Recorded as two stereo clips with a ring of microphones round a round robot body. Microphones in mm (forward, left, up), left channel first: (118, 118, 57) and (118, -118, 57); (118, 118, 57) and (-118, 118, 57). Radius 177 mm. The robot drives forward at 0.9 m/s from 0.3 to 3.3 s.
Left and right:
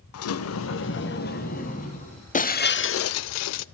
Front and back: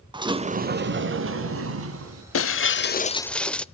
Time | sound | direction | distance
0.1 | a sliding door | 110° left | 0.8 m
2.3 | breaking glass | 30° left | 1.0 m